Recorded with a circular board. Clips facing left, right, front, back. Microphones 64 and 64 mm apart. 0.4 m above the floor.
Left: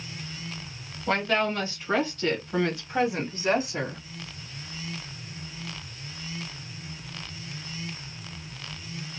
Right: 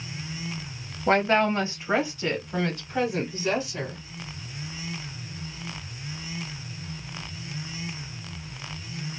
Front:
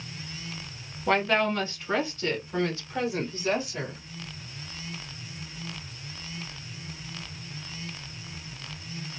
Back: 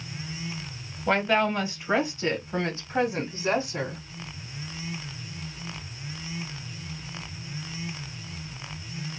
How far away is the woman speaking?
About 1.3 m.